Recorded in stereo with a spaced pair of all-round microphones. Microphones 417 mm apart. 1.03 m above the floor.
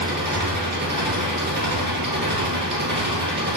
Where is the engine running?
50° right (ahead or behind), 2.5 m.